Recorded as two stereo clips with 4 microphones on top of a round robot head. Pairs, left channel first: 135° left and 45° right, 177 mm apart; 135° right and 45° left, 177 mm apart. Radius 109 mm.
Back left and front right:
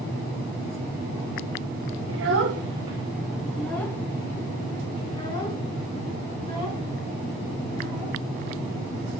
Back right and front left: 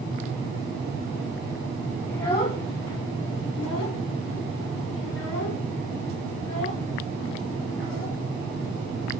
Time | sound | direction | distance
2.1 | a child speaking | 55° right | 0.6 m